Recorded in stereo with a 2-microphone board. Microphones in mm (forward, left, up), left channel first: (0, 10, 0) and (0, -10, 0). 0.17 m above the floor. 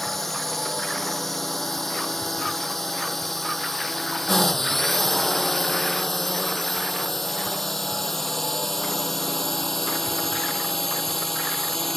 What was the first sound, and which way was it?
A drone, 10° left (ahead or behind).